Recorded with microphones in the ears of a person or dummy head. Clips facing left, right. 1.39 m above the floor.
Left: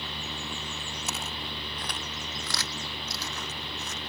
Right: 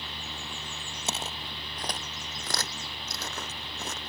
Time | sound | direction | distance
1.1 | footsteps | 25° right (ahead or behind) | ?